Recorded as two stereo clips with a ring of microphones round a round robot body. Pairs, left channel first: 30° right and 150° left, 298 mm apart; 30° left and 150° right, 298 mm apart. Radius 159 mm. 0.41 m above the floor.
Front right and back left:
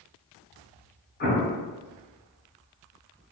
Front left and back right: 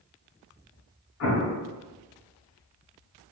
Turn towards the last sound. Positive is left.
turn(degrees=20)